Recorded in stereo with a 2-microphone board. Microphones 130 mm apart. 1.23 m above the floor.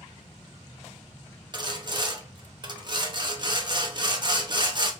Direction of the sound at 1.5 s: 35° right (ahead or behind).